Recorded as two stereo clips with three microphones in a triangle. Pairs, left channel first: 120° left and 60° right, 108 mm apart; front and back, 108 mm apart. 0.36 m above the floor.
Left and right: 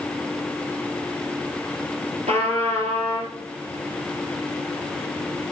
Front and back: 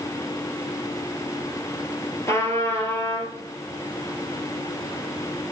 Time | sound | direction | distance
2.3 | a trumpet | 65° right | 4 m